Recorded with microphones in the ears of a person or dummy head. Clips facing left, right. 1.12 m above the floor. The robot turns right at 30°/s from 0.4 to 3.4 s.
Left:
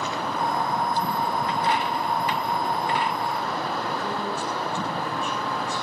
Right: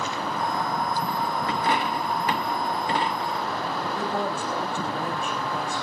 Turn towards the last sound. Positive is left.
turn(degrees=-50)  # may be behind; listen again after turning